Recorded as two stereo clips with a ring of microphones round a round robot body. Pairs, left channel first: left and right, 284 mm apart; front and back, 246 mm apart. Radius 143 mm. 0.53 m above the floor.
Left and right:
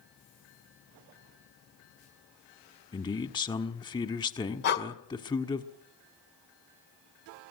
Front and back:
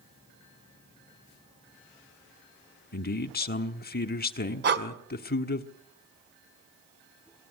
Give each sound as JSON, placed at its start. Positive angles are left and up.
{"t": 2.9, "sound": "a man speaking", "azimuth_deg": 25, "distance_m": 1.4}
{"t": 4.6, "sound": "breathing", "azimuth_deg": 140, "distance_m": 2.0}